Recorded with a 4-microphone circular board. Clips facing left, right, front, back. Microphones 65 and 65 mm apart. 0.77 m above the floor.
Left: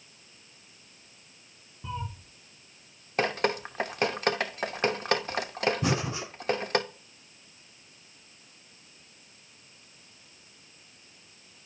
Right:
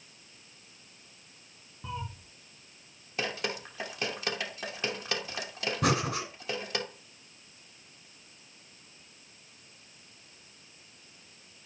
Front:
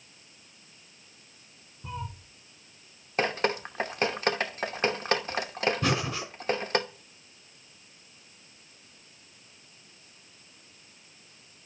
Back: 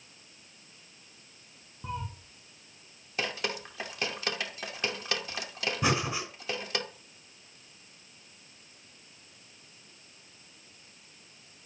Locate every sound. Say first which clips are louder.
1.8 s a cat meowing: left 2 dB, back 1 dB; 160° right, 5 m
3.2 s dripping: left 7 dB, front 7 dB; 50° left, 0.9 m
5.8 s breathing: right 1 dB, even; 105° right, 4 m